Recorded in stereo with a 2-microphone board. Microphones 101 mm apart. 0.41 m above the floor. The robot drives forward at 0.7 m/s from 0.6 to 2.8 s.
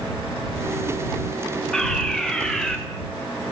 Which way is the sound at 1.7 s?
5° left (ahead or behind).